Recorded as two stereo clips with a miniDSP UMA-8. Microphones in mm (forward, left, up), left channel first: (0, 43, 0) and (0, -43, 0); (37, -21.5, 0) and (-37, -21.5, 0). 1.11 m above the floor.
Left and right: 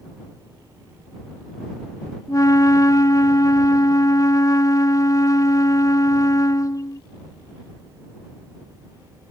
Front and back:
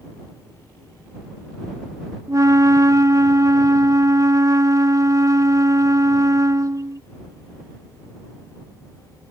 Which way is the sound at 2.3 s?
140° left.